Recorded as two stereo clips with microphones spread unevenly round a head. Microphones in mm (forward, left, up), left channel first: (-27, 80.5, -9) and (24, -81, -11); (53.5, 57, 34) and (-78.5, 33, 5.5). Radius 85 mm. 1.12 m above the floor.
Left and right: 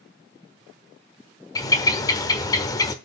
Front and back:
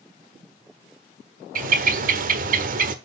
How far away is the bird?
About 1.2 m.